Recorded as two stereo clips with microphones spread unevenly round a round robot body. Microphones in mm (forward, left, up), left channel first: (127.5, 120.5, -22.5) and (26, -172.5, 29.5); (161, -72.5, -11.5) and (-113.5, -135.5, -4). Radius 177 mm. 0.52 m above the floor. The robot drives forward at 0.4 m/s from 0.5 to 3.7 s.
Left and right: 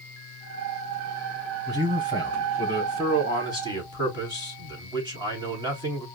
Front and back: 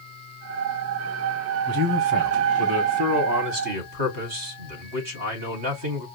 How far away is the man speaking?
About 2.5 m.